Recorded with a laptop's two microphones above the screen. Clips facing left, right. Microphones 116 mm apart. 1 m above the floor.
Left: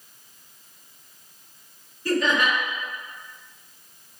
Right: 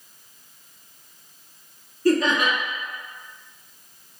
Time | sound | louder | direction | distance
2.0 | laughter | right 3 dB | 45° right (ahead or behind) | 1.9 m